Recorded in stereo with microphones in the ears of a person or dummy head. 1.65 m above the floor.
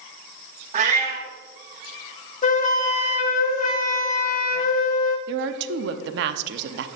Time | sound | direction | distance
0.7 | a cat meowing | 40° right (ahead or behind) | 1.9 m
2.4 | a flute | 40° left (ahead or behind) | 0.8 m
5.3 | a woman speaking | 65° right (ahead or behind) | 0.7 m